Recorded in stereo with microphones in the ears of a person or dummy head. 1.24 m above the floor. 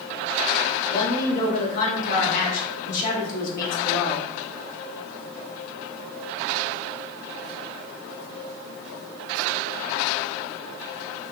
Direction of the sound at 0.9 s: 50° left (ahead or behind).